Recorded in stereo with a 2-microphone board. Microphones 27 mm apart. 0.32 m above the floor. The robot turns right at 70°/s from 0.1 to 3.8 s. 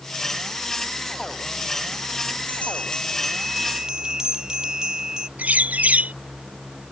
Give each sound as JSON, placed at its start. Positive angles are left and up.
{"t": 2.5, "sound": "a bell", "azimuth_deg": 120}
{"t": 5.4, "sound": "a bird", "side_deg": -70}